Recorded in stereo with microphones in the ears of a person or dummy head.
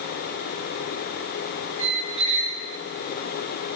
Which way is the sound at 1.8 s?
40° right (ahead or behind).